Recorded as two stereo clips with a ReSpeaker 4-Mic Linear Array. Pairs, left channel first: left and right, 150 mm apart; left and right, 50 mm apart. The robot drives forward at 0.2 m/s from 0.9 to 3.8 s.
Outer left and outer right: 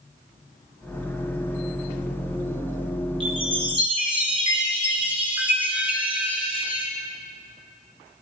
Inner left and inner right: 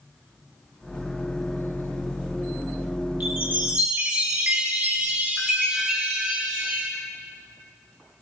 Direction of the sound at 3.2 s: 35° right (ahead or behind).